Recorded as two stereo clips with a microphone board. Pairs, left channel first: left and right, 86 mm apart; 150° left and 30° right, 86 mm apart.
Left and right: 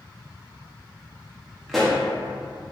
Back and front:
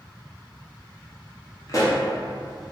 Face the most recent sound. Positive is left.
turn(degrees=180)